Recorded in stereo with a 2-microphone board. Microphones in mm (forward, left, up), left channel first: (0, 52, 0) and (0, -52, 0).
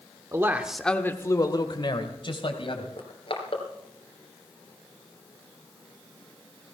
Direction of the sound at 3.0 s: 55° left (ahead or behind).